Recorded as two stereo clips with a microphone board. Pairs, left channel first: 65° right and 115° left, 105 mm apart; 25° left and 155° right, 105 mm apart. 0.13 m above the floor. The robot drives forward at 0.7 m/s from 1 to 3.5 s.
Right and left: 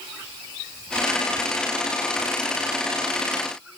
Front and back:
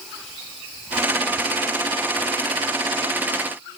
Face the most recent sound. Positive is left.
No sound to turn to.